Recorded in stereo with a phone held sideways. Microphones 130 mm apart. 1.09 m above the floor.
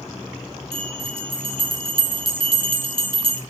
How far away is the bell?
About 3 m.